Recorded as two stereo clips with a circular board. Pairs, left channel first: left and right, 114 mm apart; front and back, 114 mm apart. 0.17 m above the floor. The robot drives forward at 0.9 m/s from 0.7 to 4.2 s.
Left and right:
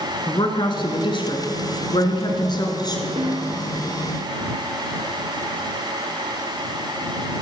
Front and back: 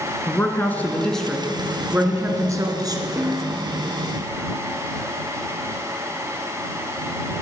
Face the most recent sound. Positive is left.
turn(degrees=-135)